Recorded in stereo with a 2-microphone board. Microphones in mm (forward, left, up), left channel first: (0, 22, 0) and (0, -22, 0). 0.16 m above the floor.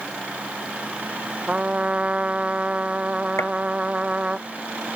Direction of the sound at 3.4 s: 80° left.